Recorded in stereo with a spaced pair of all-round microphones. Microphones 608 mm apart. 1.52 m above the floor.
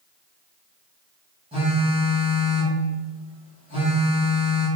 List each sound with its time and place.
1.5 s a phone buzzing: 10° right (ahead or behind), 1.0 m